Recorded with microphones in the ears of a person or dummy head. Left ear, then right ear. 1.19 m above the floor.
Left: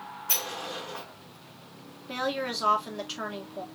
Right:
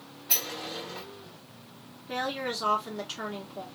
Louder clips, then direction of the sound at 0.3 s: Even; 50° left (ahead or behind).